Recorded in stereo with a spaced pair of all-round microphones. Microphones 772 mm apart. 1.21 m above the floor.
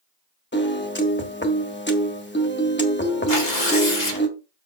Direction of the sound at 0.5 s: 15° left (ahead or behind).